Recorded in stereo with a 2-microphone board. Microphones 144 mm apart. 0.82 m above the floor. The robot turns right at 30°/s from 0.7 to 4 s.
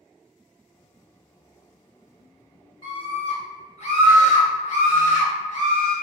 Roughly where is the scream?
Ahead left.